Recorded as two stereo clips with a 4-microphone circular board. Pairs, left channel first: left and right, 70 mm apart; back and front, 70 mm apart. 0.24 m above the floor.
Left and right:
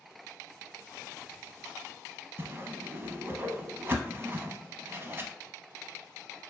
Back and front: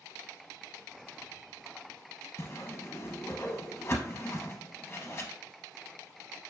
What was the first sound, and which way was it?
A whoosh, 140° right.